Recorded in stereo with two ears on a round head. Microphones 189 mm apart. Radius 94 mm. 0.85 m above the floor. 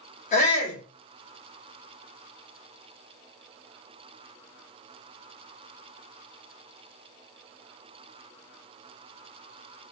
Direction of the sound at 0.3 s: 35° left (ahead or behind).